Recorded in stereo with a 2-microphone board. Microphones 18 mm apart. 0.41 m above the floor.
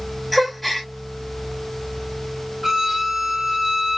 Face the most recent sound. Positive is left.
turn(degrees=-20)  # may be behind; listen again after turning